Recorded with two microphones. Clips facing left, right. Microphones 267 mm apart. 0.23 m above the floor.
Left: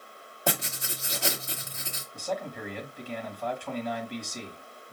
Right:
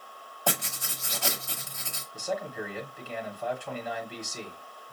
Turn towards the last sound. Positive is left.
turn(degrees=-5)  # may be behind; listen again after turning